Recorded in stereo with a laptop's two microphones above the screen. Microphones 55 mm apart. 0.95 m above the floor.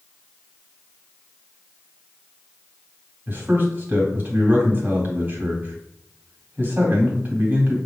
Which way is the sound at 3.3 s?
40° right (ahead or behind).